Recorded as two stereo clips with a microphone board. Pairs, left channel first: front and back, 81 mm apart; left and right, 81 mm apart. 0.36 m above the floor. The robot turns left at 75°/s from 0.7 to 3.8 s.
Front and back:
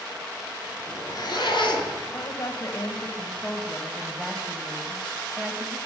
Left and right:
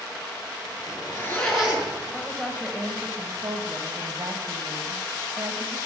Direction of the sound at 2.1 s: 20° left.